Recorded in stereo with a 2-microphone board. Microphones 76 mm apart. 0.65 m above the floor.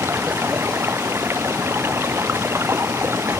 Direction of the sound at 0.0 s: 30° right (ahead or behind).